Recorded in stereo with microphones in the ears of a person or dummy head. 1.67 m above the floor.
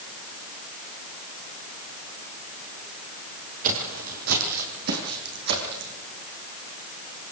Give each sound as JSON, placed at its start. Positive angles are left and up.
{"t": 3.6, "sound": "footsteps", "side_deg": -40, "distance_m": 2.5}